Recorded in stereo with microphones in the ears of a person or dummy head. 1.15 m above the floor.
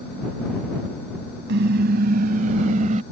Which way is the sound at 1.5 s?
60° right (ahead or behind).